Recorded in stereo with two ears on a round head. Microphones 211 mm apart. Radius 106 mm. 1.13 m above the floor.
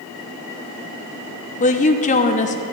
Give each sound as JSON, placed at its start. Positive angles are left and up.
{"t": 1.6, "sound": "a woman speaking", "side_deg": 35, "distance_m": 0.7}